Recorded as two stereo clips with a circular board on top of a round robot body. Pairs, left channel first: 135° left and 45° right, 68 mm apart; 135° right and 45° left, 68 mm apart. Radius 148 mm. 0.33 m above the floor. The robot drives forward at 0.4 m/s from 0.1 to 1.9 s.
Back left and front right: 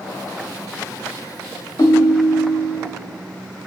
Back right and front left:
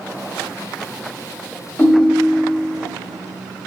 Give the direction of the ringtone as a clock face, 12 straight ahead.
7 o'clock.